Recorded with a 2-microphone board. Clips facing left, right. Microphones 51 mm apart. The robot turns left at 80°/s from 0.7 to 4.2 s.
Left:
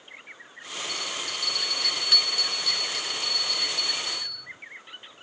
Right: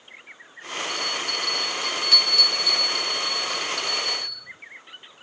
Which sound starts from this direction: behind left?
A bell, at 0.9 s.